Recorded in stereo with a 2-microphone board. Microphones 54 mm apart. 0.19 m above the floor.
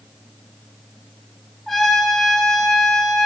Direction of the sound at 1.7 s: Centre (ahead or behind).